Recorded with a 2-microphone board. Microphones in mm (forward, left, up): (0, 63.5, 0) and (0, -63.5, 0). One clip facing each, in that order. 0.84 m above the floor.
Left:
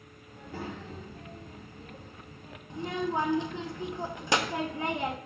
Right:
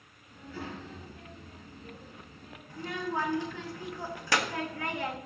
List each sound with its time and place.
0.3 s a child speaking: 50° left (ahead or behind), 5 m
2.7 s a child speaking: 20° left (ahead or behind), 0.8 m